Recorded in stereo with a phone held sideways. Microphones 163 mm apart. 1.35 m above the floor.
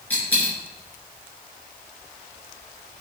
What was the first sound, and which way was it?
A dropped coin, 10° left (ahead or behind).